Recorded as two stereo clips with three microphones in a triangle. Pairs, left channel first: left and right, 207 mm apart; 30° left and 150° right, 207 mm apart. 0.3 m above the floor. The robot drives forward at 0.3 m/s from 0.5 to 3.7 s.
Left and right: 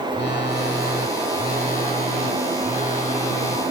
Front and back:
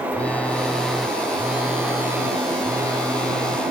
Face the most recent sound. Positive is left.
turn(degrees=145)